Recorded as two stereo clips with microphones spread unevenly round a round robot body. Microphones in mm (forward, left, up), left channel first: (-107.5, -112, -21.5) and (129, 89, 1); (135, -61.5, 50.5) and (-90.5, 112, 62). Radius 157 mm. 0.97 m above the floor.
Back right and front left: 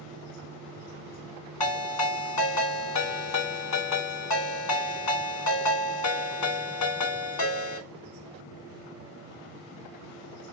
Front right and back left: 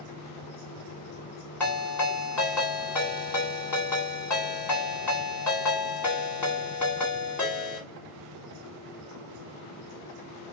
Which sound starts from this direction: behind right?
A ringtone, at 1.6 s.